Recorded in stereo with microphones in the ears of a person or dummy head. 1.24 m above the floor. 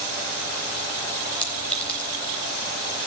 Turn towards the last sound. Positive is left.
turn(degrees=10)  # may be behind; listen again after turning